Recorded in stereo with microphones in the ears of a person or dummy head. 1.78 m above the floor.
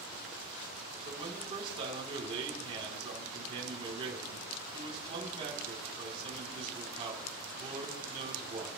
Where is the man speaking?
25° right (ahead or behind), 4 m.